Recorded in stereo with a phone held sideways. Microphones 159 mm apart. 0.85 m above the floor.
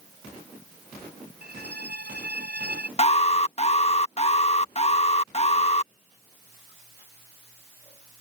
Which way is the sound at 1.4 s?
80° right.